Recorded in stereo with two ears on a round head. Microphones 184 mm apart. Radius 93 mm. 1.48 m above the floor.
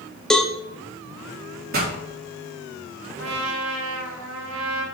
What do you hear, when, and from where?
0.3 s a cowbell: 5° left (ahead or behind), 0.8 m
1.7 s a pop: 50° right (ahead or behind), 4 m
3.2 s a trumpet: 70° right (ahead or behind), 1.8 m